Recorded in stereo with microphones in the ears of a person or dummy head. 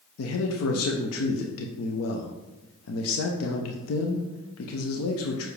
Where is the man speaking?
75° left (ahead or behind), 0.9 m.